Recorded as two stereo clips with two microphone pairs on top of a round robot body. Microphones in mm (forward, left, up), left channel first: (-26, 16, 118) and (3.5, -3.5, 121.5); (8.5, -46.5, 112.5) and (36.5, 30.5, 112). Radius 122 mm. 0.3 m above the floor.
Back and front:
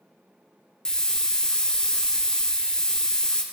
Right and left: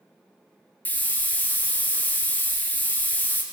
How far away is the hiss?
About 0.9 m.